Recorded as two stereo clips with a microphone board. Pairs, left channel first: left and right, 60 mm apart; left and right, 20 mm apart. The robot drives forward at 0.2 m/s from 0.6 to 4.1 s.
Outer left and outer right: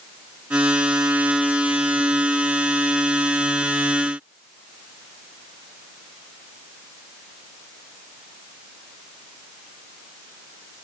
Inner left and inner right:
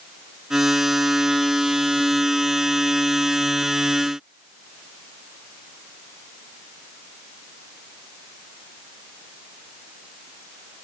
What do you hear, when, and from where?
Only background noise.